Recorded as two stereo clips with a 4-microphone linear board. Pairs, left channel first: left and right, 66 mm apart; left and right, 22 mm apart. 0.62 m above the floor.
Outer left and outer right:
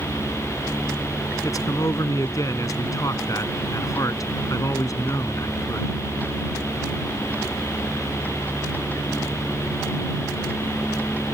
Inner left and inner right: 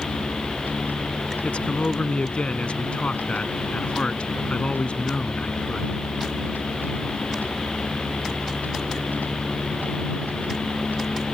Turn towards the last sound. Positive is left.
turn(degrees=60)  # may be behind; listen again after turning